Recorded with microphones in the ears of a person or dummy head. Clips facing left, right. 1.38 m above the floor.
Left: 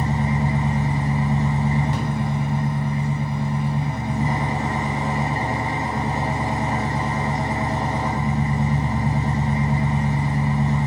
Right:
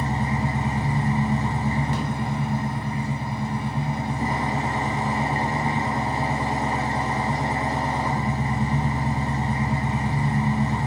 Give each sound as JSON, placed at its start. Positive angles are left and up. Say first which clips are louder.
{"t": 0.0, "sound": "an engine running", "louder": "left 3 dB", "side_deg": -50, "distance_m": 1.2}